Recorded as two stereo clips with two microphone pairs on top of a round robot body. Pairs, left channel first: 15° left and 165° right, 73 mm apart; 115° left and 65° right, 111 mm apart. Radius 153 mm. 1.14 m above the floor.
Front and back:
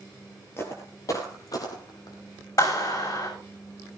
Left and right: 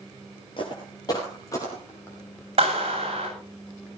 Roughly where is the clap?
Ahead right.